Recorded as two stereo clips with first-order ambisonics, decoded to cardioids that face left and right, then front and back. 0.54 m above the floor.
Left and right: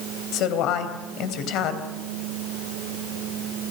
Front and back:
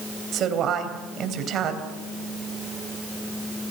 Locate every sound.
0.3 s a woman speaking: 125° left, 3.5 m